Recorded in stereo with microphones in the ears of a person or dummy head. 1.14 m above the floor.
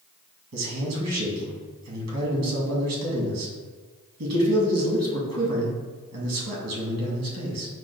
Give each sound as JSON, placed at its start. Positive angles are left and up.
{"t": 0.5, "sound": "a man speaking", "side_deg": -75, "distance_m": 1.7}